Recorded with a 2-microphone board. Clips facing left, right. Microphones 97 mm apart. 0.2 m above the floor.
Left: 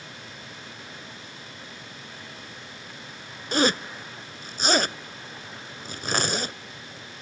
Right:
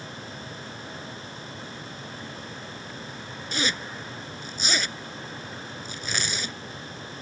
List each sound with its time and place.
3.5 s a zipper: 55° left (ahead or behind)